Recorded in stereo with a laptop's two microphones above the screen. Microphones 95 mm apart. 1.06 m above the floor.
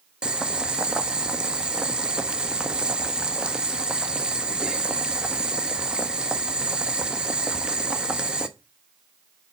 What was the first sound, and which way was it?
Boiling, 10° right (ahead or behind).